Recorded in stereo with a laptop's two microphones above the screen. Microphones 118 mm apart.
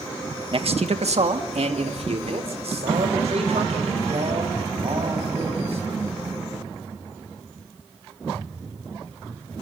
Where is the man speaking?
50° right (ahead or behind), 1.1 m; by 5.8 s 60° right (ahead or behind), 9 m.